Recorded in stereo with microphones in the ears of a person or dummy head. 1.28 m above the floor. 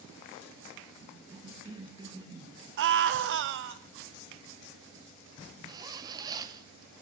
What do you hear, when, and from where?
1.0 s a cough: 20° right (ahead or behind), 2.5 m
2.8 s a scream: 65° right (ahead or behind), 1.0 m
5.7 s a zipper: 20° right (ahead or behind), 0.7 m